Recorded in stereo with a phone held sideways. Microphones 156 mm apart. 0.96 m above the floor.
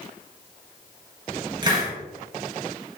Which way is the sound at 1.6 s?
30° right (ahead or behind).